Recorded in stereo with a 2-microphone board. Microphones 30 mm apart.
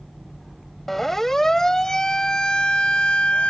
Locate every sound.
0.9 s a siren: 10° left (ahead or behind); by 3.5 s 40° left (ahead or behind)